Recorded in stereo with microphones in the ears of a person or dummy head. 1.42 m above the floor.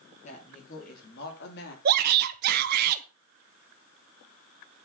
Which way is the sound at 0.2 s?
40° left (ahead or behind).